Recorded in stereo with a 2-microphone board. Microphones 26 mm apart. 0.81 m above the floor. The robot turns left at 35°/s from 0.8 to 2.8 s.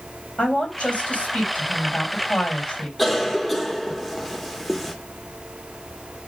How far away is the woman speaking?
About 3 m.